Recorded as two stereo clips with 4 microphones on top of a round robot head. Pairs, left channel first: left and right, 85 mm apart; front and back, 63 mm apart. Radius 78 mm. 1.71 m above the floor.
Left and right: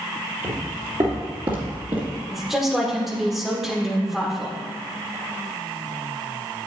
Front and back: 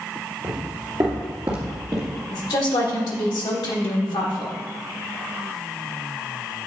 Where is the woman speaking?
5° right, 1.3 m.